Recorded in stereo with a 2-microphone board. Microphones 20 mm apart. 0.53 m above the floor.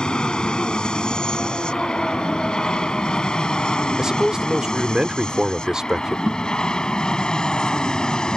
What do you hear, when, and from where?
0.0 s an aircraft: 50° left (ahead or behind); by 8.4 s 45° left (ahead or behind)
4.0 s a man speaking: 35° right (ahead or behind)
6.3 s a guitar: 55° right (ahead or behind)